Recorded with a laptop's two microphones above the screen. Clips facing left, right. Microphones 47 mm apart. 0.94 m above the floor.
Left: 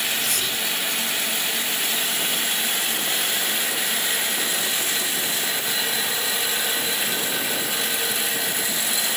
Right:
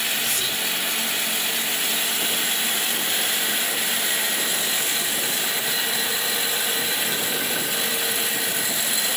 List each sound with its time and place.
0.2 s whispering: 85° left, 8.5 m